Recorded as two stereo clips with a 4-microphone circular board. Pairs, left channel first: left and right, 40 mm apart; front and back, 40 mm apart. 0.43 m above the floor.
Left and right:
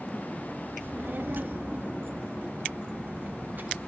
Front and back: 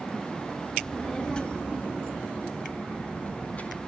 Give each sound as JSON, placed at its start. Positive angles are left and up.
{"t": 0.8, "sound": "a child speaking", "azimuth_deg": -75, "distance_m": 1.4}